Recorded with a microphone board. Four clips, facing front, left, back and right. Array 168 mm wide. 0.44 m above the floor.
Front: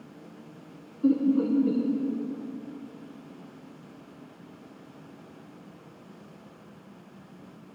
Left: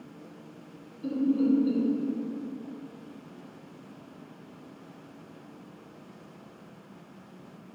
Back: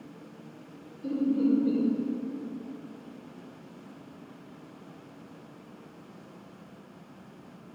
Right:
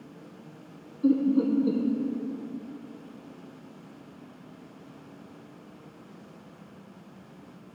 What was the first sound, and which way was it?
Laughter, 35° right.